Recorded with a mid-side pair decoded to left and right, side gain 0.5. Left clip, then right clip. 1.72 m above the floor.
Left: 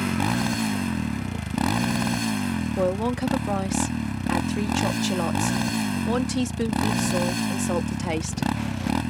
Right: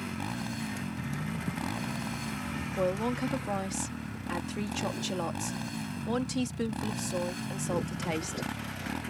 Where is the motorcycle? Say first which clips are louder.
Left 12 dB; 65° left.